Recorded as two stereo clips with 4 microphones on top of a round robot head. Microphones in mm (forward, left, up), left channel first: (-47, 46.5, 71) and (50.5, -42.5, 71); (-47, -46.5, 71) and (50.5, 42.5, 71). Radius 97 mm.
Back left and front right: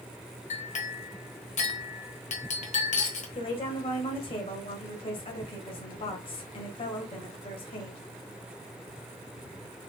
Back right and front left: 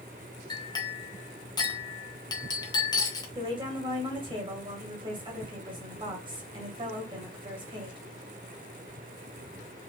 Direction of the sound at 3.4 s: 95° left.